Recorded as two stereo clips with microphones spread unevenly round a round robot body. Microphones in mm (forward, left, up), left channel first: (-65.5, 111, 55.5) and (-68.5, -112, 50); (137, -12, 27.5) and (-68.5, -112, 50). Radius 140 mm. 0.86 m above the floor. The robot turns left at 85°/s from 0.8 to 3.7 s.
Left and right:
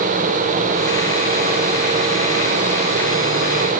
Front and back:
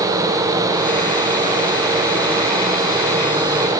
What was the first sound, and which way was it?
Only background noise.